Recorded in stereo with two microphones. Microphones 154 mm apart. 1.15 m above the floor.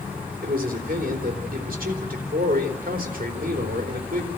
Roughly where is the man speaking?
Right.